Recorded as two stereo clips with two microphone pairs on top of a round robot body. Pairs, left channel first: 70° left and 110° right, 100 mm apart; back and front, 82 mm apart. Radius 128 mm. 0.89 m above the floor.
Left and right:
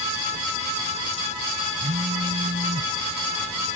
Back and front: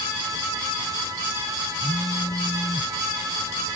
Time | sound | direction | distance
1.8 | a phone buzzing | 120° right | ?